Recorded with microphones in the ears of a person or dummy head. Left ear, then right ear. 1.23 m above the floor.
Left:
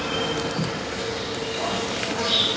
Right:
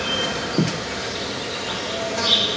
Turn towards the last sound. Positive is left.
turn(degrees=-70)  # may be behind; listen again after turning